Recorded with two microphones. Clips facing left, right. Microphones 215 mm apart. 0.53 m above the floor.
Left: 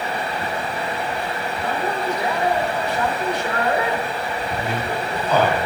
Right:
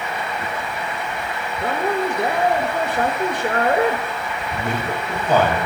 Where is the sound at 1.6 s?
50° right (ahead or behind), 1.7 m.